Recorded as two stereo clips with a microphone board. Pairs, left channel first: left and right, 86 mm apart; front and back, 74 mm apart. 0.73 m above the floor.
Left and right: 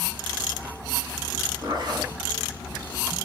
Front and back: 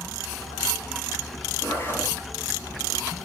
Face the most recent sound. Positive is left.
turn(degrees=-55)